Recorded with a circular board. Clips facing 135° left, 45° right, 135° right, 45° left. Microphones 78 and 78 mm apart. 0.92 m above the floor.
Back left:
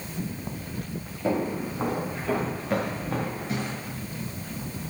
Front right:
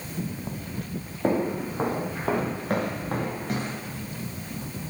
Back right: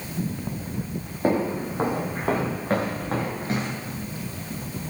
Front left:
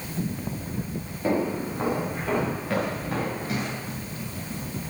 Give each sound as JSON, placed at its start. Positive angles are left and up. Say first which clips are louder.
{"t": 1.2, "sound": "footsteps", "louder": "front right 2 dB, back right 2 dB", "azimuth_deg": -85, "distance_m": 6.0}